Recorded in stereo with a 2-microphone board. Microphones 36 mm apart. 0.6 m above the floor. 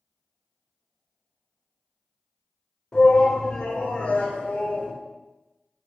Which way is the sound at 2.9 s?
20° left (ahead or behind).